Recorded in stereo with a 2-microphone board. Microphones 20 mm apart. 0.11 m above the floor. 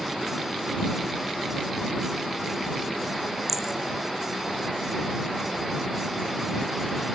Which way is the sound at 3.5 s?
15° right (ahead or behind).